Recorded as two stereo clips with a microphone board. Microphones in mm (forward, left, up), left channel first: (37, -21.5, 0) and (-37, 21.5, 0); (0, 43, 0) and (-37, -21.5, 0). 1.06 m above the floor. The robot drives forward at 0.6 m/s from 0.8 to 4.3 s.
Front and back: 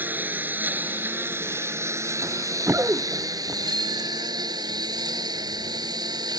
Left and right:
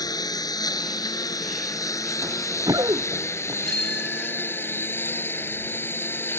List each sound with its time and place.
0.0 s a lawn mower: 85° left; by 6.4 s 120° left
2.2 s running footsteps: 160° right; by 3.5 s 145° right
3.6 s a bicycle bell: 145° left; by 5.0 s 150° left